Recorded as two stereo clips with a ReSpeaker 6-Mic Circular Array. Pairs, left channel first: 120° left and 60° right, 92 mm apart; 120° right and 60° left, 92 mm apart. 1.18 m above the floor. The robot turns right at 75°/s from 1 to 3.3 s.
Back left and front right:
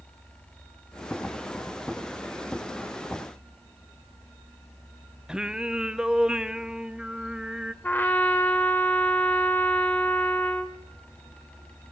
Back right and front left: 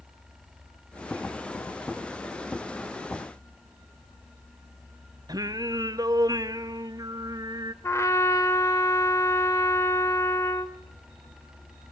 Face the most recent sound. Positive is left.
turn(degrees=-175)